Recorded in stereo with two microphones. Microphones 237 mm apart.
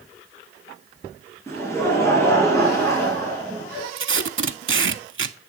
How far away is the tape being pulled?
About 0.5 m.